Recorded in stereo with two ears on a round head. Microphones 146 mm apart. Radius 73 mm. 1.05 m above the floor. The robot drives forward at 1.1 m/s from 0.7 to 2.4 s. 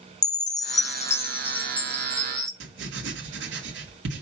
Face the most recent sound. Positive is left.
turn(degrees=-80)